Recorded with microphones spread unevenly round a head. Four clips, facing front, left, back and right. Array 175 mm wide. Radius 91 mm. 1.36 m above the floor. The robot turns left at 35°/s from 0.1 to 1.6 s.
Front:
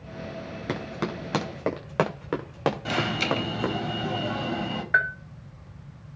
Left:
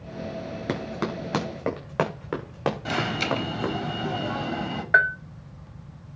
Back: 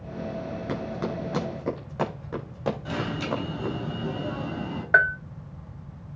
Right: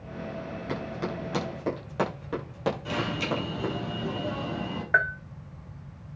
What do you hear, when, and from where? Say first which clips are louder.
0.7 s running footsteps: left 4 dB, front 1 dB; 55° left, 8 m; by 3.8 s 15° left, 6.5 m
2.9 s an alarm: left 3 dB, front 3 dB; 35° left, 4.5 m
4.9 s a bell: left 4 dB, back 4 dB; 155° left, 0.5 m